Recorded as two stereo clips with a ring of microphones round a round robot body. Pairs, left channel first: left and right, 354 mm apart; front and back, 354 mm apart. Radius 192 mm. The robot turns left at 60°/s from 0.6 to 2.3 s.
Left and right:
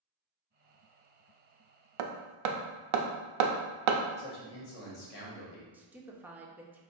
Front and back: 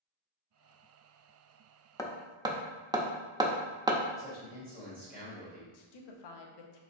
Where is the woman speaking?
5° right, 0.8 m.